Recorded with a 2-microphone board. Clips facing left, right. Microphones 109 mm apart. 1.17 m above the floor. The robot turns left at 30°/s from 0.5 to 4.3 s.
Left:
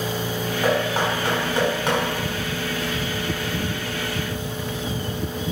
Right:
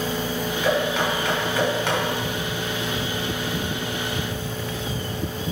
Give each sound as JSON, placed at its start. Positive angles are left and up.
{"t": 0.6, "sound": "knocking", "side_deg": 50, "distance_m": 4.5}